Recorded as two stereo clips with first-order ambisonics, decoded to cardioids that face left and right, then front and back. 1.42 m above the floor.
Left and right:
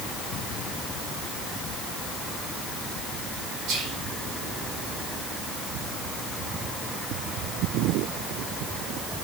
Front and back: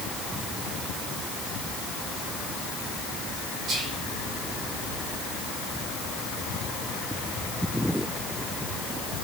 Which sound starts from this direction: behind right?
Whispering, at 3.7 s.